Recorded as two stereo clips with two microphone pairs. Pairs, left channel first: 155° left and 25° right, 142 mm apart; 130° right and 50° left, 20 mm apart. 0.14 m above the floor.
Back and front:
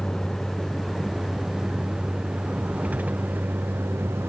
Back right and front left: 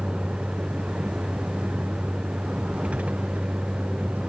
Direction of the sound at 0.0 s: 70° left.